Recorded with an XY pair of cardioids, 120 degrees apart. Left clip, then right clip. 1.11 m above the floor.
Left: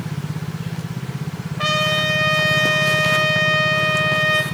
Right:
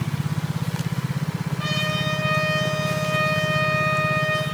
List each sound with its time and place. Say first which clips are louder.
1.6 s a trumpet: left 7 dB; 55° left, 1.2 m